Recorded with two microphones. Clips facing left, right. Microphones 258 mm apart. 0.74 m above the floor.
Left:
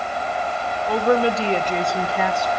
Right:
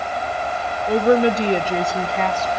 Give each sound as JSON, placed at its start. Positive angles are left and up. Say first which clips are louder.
{"t": 0.9, "sound": "a woman speaking", "louder": "right 3 dB", "side_deg": -25, "distance_m": 1.2}